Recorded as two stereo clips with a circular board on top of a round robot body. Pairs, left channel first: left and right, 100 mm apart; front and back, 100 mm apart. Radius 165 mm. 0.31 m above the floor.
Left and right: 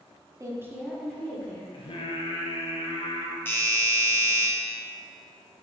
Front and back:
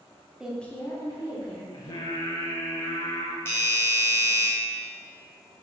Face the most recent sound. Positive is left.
turn(degrees=45)